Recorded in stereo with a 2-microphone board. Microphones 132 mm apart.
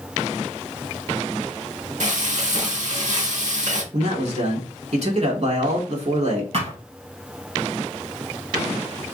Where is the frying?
70° right (ahead or behind), 0.9 m.